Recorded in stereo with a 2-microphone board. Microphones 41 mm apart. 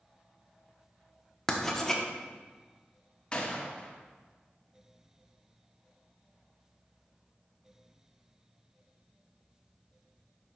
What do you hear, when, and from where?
1.5 s writing: 10° left (ahead or behind), 0.9 m
3.3 s a gunshot: 25° left (ahead or behind), 1.1 m